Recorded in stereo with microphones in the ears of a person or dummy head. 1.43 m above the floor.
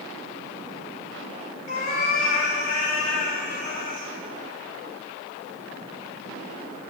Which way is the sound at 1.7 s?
50° left (ahead or behind).